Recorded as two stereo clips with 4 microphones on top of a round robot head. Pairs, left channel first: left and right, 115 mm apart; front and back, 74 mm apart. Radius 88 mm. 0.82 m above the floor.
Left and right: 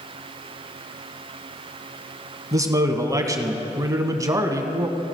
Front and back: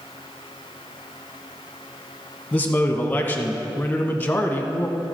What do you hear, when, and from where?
2.5 s a man speaking: 50° right, 1.1 m